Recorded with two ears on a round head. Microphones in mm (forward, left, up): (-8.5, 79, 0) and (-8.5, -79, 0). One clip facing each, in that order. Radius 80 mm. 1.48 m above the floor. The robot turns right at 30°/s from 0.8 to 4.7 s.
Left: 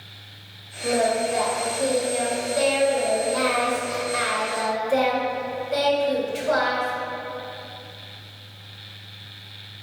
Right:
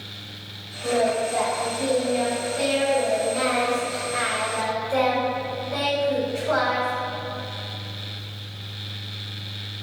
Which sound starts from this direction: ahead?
Singing, at 0.8 s.